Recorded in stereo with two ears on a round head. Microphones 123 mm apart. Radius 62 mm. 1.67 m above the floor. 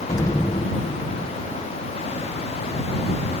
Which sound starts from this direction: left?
An explosion, at 0.1 s.